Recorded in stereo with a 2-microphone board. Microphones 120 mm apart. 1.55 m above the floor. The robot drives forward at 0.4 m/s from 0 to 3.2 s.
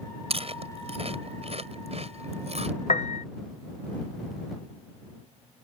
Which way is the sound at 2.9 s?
65° left (ahead or behind).